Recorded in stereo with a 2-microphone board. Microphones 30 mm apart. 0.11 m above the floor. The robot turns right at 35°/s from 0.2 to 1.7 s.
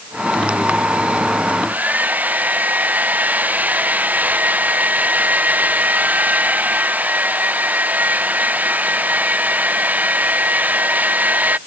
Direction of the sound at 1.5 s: 55° right (ahead or behind).